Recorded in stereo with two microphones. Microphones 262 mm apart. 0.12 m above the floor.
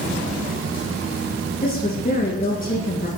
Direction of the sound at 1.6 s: 35° left (ahead or behind).